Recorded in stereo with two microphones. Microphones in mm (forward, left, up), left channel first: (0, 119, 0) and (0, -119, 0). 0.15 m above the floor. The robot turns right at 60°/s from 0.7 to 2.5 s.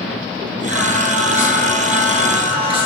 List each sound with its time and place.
0.7 s singing: 100° left, 2.5 m; by 2.9 s 155° right, 2.5 m